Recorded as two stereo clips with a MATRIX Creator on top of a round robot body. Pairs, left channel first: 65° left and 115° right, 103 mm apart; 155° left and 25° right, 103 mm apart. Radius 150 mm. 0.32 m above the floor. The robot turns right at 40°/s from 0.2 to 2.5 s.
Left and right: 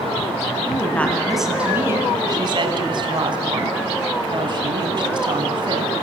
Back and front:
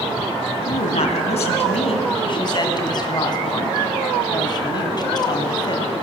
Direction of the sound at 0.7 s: 130° left.